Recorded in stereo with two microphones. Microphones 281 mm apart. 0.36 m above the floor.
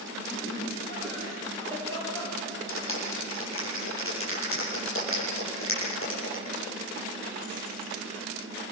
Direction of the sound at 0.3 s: 20° left (ahead or behind).